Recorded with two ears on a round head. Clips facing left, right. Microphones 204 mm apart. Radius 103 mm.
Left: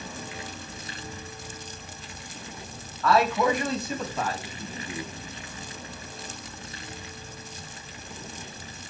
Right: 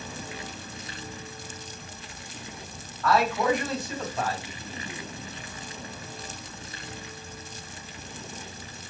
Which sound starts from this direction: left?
A man speaking, at 3.0 s.